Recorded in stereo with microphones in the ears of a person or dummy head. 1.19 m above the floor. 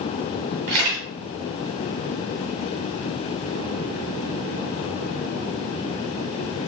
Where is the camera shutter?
40° right (ahead or behind), 1.5 m.